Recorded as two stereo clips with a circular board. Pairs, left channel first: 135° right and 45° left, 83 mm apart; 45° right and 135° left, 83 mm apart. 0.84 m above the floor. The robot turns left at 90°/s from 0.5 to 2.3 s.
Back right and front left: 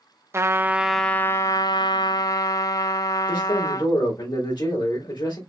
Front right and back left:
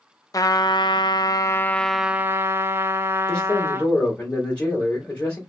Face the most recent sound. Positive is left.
turn(degrees=-120)